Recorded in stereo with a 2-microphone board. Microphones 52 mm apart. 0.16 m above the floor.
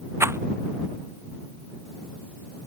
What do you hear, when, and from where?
0.2 s a rattle: 50° right (ahead or behind)